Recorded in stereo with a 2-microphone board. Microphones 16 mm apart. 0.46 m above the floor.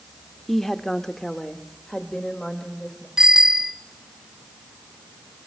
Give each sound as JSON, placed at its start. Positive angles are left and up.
{"t": 0.5, "sound": "a woman speaking", "side_deg": 15, "distance_m": 1.0}
{"t": 3.2, "sound": "a bicycle bell", "side_deg": -40, "distance_m": 2.5}